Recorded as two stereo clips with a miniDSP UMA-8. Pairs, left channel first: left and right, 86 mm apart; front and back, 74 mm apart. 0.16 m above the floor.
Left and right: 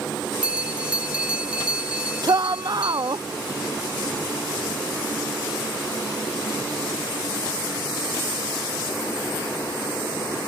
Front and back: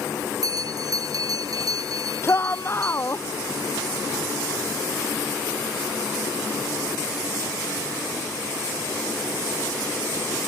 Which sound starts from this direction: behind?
A bell, at 0.4 s.